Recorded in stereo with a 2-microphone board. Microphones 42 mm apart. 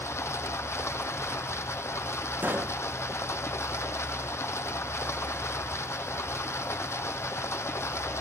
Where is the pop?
45° right (ahead or behind), 1.0 m.